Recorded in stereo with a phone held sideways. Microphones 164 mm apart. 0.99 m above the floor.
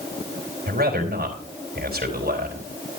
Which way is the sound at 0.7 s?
65° right (ahead or behind).